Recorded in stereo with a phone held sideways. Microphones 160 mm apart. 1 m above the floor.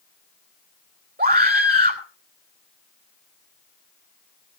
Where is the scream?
75° right (ahead or behind), 2.5 m.